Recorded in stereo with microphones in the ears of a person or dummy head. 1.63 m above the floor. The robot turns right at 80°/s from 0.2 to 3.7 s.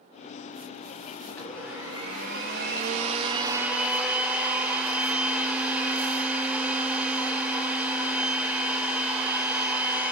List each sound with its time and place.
1.3 s a blender: 155° left, 1.3 m; by 10.1 s 10° right, 1.3 m